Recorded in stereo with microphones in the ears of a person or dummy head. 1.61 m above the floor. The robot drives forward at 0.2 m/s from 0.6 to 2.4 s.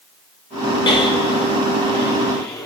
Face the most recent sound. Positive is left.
turn(degrees=20)  # may be behind; listen again after turning